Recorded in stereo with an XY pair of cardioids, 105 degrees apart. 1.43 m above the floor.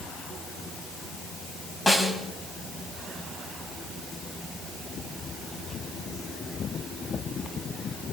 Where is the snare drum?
10° left, 4 m.